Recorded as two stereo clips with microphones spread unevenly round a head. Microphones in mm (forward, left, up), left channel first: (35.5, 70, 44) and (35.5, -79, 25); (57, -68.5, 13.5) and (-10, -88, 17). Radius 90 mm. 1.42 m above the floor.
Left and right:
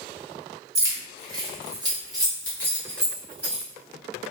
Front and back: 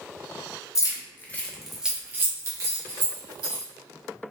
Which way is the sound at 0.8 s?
20° right.